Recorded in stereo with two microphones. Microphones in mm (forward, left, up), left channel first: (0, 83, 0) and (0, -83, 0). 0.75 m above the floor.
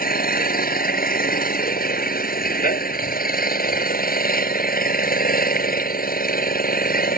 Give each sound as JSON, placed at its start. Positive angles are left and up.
{"t": 0.0, "sound": "an engine running", "side_deg": 60}